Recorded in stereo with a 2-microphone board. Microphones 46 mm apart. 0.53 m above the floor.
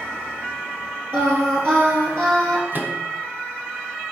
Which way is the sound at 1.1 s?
65° right (ahead or behind).